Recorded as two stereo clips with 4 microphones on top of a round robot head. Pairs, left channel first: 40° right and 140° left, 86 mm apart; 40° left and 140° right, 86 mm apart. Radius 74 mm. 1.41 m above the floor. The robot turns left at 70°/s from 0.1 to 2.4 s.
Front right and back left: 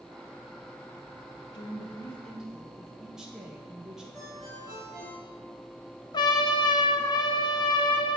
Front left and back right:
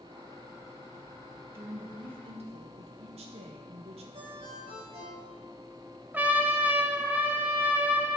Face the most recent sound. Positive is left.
turn(degrees=-70)